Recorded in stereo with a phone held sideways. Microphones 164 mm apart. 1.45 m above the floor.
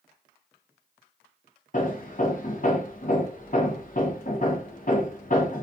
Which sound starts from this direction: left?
Hammering, at 1.7 s.